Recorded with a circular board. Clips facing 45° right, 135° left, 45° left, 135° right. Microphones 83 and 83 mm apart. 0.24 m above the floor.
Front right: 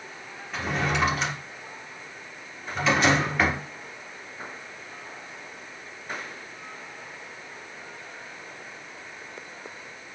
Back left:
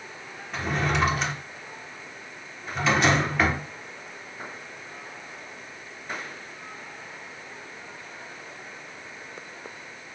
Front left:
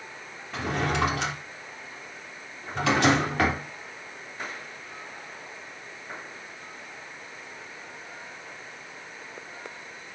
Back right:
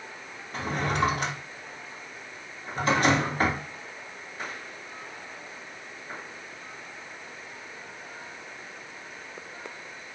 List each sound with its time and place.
0.5 s a drawer: 45° left, 3 m